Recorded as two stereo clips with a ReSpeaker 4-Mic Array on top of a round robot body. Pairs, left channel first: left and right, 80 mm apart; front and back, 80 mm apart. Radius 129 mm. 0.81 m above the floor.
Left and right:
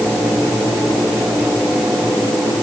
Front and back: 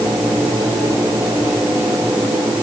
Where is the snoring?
No snoring in this recording.